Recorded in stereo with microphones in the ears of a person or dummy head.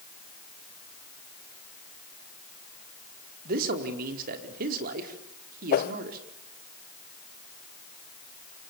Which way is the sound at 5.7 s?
40° left (ahead or behind).